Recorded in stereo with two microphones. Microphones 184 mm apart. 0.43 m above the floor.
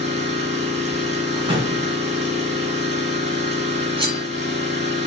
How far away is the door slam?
About 4 m.